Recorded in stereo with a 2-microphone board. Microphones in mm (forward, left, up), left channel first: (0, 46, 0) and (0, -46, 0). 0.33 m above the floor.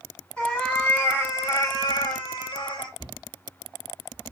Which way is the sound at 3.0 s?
45° left (ahead or behind).